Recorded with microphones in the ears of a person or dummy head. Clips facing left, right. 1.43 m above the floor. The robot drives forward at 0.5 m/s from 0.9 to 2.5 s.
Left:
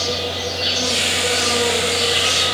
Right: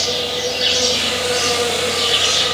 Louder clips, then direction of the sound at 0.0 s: Right 2 dB; 75° right (ahead or behind).